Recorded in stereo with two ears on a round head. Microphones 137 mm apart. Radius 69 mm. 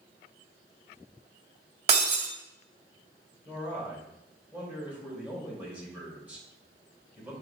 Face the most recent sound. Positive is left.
turn(degrees=-10)  # may be behind; listen again after turning